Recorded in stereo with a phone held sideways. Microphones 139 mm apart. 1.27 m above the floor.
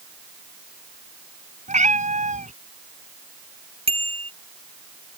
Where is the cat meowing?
60° right (ahead or behind).